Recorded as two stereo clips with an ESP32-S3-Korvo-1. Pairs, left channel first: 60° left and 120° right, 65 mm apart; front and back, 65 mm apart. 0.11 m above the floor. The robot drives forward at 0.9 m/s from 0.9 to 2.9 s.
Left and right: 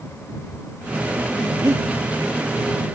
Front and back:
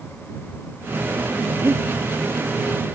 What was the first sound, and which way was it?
Breathing, 135° right.